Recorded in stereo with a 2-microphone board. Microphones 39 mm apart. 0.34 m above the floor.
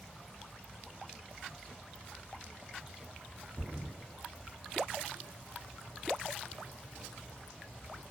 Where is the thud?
65° right (ahead or behind), 1.2 m.